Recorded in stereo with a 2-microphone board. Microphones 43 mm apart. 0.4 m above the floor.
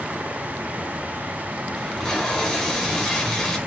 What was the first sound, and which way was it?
Tape being pulled, 10° left (ahead or behind).